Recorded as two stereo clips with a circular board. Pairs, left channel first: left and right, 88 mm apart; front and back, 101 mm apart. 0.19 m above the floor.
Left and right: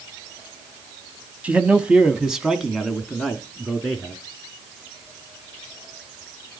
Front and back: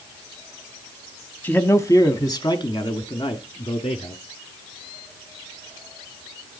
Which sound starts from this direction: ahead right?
A man speaking, at 1.4 s.